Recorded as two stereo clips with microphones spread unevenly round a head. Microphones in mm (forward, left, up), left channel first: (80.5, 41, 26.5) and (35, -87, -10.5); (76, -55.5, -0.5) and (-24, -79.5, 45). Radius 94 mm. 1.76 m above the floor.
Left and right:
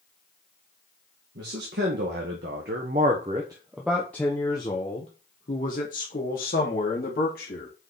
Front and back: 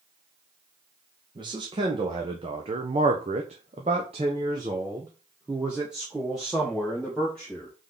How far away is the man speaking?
About 1.9 m.